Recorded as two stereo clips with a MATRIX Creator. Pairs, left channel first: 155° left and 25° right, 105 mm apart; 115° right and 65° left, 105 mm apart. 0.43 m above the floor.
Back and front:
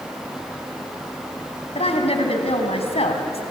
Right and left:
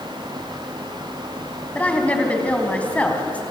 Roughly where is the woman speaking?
Behind.